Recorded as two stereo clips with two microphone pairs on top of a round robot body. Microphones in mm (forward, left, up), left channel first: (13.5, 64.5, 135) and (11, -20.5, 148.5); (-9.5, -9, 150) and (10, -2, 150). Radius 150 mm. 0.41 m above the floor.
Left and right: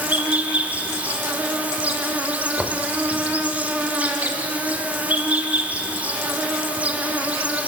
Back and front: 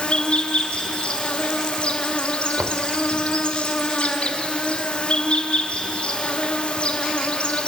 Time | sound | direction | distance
0.0 | an insect | 170° right | 2.0 m
2.6 | knocking | 10° right | 1.3 m